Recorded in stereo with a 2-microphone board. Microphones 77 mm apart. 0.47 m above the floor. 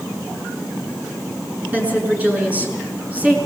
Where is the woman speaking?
20° right (ahead or behind), 6.5 m.